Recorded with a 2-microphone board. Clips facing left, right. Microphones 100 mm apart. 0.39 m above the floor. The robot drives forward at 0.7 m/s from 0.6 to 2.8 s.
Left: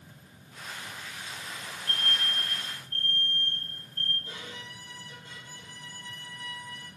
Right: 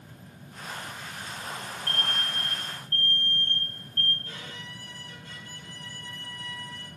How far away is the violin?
About 3.5 m.